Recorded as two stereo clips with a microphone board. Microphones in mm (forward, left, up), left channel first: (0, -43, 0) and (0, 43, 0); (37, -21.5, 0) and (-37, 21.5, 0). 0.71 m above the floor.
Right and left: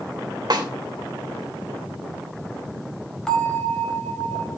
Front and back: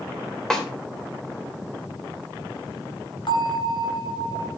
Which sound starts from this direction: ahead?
A bell, at 3.3 s.